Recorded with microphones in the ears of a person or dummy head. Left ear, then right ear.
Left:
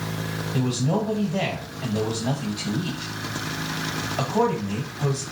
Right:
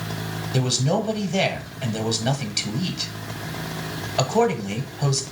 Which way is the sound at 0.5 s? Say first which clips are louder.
Right 3 dB; 60° right (ahead or behind).